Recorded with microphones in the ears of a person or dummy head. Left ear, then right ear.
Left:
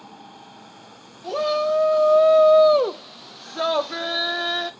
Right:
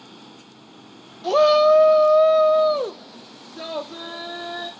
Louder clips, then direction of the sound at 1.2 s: Right 7 dB; 35° right (ahead or behind).